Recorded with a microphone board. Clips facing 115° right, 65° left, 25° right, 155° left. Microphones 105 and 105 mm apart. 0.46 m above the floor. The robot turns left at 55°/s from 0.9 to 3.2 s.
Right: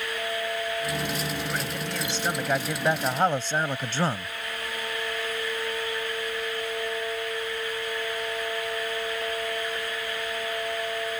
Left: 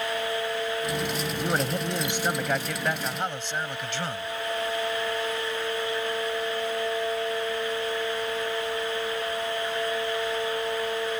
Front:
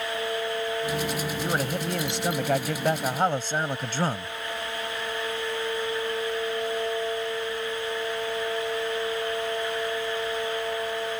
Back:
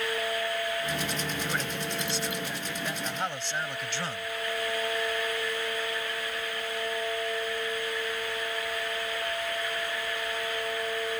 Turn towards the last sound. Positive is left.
turn(degrees=-65)